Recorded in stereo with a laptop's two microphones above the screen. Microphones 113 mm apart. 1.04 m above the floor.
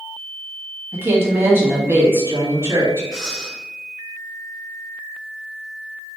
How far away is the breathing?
About 0.9 m.